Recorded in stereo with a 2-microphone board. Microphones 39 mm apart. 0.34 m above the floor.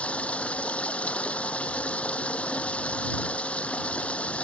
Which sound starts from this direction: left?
Running water, at 0.0 s.